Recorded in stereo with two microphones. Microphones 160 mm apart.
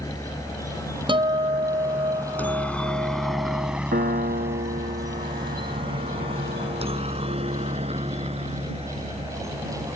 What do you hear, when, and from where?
0.0 s a helicopter: 20° left (ahead or behind); by 10.0 s 40° right (ahead or behind)
1.1 s a guitar: 30° right (ahead or behind)
3.9 s a piano: 70° right (ahead or behind)